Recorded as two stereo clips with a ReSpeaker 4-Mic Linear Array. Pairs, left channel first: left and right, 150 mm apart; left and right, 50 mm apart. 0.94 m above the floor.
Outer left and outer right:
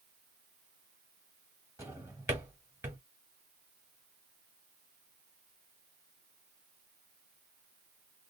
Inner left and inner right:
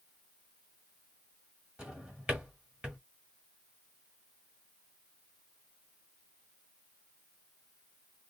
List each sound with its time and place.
1.8 s a drawer: 20° right (ahead or behind), 1.3 m